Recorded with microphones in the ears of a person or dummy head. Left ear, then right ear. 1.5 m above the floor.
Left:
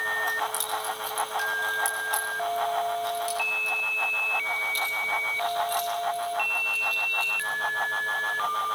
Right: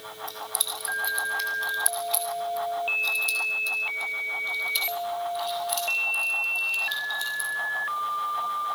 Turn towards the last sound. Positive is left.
turn(degrees=20)  # may be behind; listen again after turning